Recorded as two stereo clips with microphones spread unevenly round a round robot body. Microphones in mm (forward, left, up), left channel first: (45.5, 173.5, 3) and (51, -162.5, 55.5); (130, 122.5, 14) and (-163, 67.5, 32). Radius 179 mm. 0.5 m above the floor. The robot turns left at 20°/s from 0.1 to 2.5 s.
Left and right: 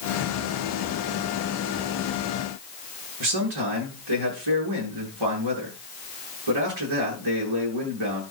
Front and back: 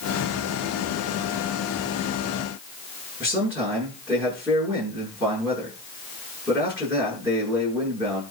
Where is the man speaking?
85° right, 8.5 m.